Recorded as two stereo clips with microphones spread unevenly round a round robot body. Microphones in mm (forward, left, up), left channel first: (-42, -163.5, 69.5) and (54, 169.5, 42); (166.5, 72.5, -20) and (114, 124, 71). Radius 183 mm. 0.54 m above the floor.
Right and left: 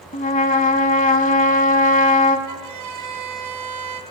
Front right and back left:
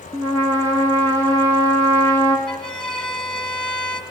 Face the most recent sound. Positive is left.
turn(degrees=30)